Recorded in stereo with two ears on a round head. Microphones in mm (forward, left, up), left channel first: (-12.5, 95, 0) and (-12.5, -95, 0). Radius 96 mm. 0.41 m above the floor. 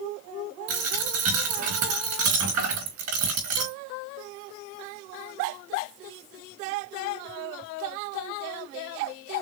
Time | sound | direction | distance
0.7 | a dropped coin | 80° right | 4 m